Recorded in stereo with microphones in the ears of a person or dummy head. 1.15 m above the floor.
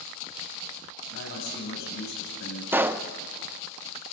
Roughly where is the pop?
Centre.